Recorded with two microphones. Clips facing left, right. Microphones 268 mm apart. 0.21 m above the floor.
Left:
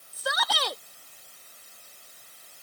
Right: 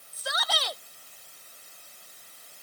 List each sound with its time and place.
0.1 s a shout: 75° left (ahead or behind)